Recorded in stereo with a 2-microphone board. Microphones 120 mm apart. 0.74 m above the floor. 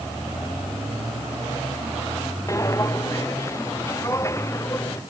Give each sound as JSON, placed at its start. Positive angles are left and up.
{"t": 2.5, "sound": "footsteps", "side_deg": 25}